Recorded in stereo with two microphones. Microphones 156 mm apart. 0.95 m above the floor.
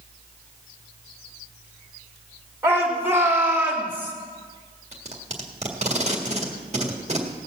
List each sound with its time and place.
2.6 s a shout: 15° right (ahead or behind), 3.5 m; by 4.1 s 10° right (ahead or behind), 2.5 m
4.9 s tape being pulled: 45° right (ahead or behind), 1.7 m